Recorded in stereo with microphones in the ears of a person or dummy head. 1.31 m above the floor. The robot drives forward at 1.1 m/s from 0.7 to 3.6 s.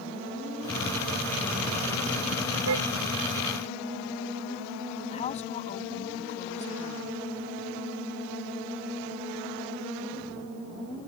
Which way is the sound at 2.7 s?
85° right.